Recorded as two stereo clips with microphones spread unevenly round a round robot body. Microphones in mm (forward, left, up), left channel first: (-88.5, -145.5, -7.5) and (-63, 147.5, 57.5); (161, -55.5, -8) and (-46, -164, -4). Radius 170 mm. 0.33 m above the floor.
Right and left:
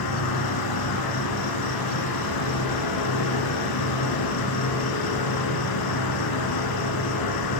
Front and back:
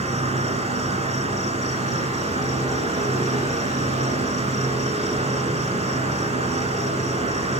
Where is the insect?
90° right, 1.4 m.